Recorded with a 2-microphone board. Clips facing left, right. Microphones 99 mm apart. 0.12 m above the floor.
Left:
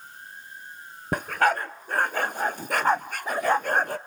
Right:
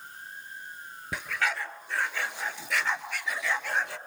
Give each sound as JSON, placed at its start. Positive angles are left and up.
{"t": 1.1, "sound": "a dog barking", "side_deg": 50, "distance_m": 0.6}